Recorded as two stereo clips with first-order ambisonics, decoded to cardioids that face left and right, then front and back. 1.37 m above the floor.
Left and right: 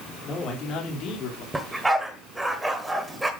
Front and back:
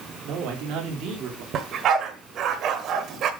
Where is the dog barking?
170° right, 1.3 m.